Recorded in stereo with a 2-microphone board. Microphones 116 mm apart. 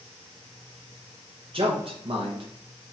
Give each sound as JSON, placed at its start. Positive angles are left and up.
{"t": 1.5, "sound": "a man speaking", "side_deg": -50, "distance_m": 0.9}